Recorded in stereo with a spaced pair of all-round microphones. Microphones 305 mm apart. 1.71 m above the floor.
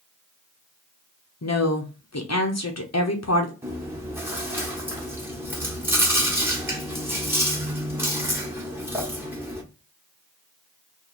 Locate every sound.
1.4 s a woman speaking: 60° left (ahead or behind), 0.7 m
3.6 s chewing: 5° right (ahead or behind), 1.1 m